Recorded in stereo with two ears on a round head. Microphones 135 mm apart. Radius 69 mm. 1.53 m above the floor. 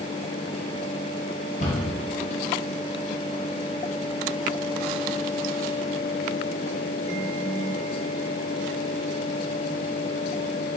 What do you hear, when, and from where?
1.6 s a cupboard door: 50° left (ahead or behind), 2 m